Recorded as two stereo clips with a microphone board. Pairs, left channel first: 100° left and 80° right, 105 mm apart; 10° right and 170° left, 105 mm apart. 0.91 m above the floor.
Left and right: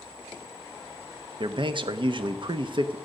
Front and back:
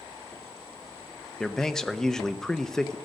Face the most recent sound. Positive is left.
turn(degrees=-95)